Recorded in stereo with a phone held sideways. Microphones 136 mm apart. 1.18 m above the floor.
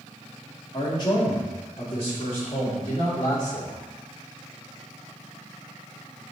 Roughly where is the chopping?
No chopping in this recording.